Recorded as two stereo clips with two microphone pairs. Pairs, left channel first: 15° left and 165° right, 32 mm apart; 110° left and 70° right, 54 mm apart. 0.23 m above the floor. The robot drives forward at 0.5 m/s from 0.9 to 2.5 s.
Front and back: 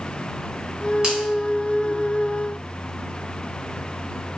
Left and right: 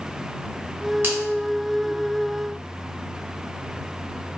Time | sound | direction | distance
1.0 | a finger snap | 110° right | 1.2 m